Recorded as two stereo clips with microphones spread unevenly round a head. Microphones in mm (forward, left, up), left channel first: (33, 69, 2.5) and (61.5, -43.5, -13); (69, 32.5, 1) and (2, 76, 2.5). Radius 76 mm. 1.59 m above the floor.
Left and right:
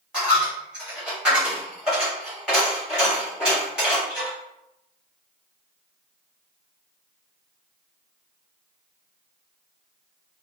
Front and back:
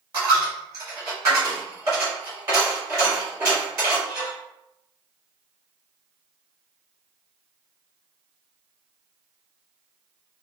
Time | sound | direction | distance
0.1 | a dropped coin | 165° right | 1.3 m